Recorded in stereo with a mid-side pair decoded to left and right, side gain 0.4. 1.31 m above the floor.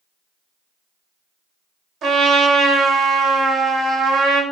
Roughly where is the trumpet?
Right.